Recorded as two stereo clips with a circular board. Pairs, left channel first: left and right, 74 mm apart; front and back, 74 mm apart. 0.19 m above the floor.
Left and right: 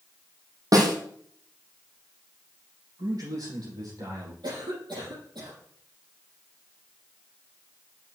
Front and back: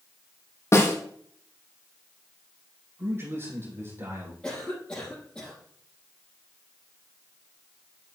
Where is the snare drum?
50° right, 2 m.